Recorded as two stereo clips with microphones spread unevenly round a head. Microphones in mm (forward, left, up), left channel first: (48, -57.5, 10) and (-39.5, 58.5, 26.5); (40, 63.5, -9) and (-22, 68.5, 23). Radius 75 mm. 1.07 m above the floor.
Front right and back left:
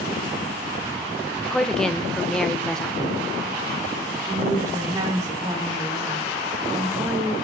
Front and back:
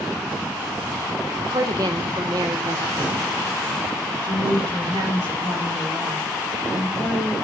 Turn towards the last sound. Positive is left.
turn(degrees=-160)